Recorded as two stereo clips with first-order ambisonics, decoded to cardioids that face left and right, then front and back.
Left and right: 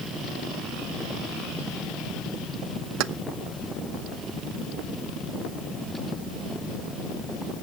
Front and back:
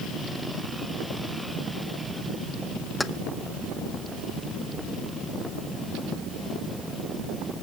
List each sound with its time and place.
3.0 s keys jangling: 85° right, 0.5 m